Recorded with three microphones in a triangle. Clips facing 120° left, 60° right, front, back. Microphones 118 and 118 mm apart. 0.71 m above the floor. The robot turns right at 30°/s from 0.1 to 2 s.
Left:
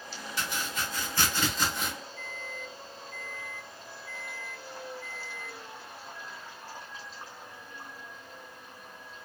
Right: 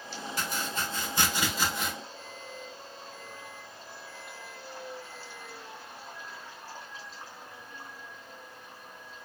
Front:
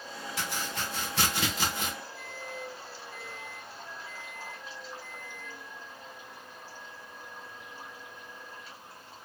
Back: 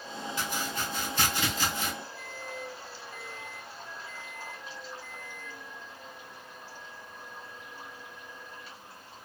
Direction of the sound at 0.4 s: 15° right.